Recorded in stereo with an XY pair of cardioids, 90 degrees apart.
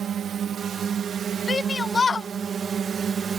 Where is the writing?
I don't hear writing.